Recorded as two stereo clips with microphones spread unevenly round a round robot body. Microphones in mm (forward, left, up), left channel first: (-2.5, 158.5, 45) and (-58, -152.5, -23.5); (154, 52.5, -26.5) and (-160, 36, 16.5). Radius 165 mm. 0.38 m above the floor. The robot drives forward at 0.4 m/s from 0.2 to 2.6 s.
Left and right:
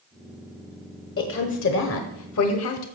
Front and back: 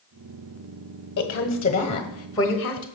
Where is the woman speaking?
35° left, 1.3 m; by 2.9 s 70° left, 1.1 m.